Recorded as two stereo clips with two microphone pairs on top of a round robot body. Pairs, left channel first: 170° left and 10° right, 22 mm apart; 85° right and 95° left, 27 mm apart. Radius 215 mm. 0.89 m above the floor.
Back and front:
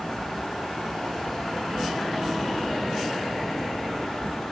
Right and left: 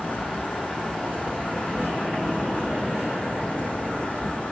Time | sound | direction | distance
0.0 | an insect | 125° right | 2.5 m